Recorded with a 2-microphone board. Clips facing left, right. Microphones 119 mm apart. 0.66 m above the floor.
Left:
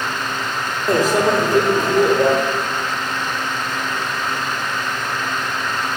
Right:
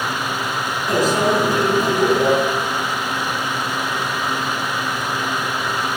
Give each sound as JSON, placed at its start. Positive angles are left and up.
{"t": 0.9, "sound": "a microwave", "side_deg": 45, "distance_m": 1.3}